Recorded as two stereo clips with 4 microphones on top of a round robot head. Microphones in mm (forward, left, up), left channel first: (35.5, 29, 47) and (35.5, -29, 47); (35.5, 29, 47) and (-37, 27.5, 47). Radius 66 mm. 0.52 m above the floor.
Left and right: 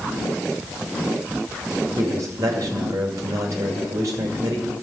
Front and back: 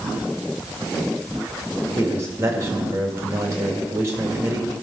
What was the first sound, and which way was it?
A man speaking, 125° right.